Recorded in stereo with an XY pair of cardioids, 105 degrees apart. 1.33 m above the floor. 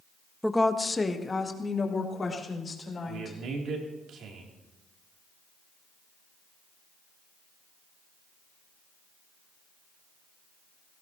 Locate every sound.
0.4 s a woman speaking: straight ahead, 0.6 m; by 3.4 s 35° left, 5 m
3.1 s a man speaking: 70° right, 3.5 m